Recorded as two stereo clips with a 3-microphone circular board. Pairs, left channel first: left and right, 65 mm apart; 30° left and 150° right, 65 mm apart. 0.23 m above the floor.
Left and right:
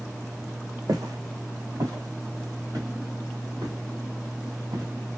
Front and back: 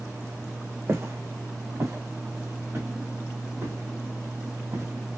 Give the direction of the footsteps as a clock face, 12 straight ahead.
3 o'clock.